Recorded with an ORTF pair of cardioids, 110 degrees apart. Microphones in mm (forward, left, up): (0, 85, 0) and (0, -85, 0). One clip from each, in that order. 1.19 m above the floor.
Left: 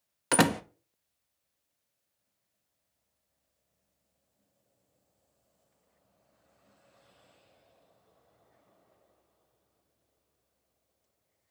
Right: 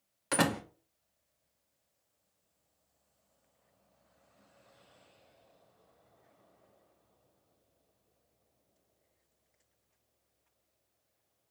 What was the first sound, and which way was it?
A door slam, 35° left.